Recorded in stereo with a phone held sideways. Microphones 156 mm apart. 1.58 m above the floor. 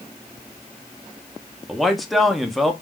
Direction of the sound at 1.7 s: Centre (ahead or behind).